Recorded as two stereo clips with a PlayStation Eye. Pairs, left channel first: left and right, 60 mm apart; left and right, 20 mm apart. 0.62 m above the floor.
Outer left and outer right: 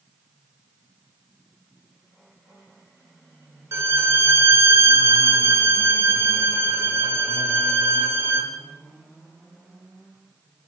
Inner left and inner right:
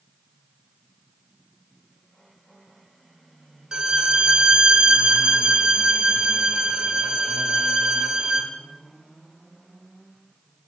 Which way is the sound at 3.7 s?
50° right (ahead or behind).